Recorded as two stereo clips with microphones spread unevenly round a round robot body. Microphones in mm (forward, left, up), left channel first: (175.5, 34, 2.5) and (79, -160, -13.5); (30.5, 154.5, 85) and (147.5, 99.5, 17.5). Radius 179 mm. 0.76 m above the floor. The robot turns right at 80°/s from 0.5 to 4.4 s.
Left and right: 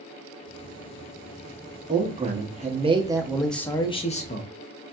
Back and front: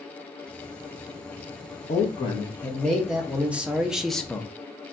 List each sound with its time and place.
1.9 s a man speaking: 155° right, 0.7 m; by 4.5 s 45° left, 0.7 m